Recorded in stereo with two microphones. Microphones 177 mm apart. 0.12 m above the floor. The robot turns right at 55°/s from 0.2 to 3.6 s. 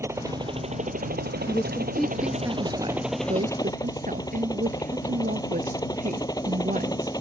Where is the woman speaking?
25° left (ahead or behind); by 7.1 s 50° right (ahead or behind).